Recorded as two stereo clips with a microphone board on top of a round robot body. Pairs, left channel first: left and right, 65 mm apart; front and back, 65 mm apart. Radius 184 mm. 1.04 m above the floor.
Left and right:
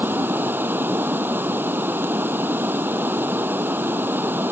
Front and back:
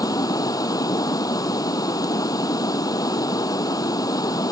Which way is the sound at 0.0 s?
30° right.